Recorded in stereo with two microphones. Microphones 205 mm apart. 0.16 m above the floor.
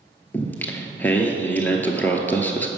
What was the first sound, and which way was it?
Singing, 10° left (ahead or behind).